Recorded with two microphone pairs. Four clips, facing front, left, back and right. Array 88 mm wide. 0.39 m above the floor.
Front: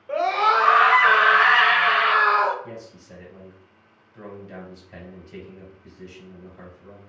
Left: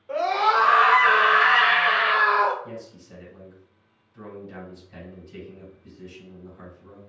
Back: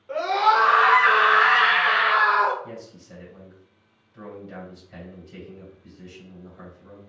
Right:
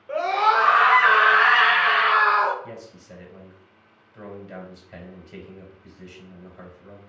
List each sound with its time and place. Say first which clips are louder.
0.1 s a scream: right 1 dB, even; 55° right, 1.3 m; by 2.5 s 70° right, 2 m
2.6 s a man speaking: left 1 dB, even; 90° right, 2 m